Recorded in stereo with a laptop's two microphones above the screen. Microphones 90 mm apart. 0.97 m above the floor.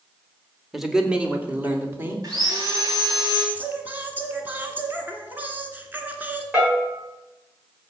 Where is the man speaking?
Centre (ahead or behind), 2.0 m; by 2.1 s 25° right (ahead or behind), 3.5 m.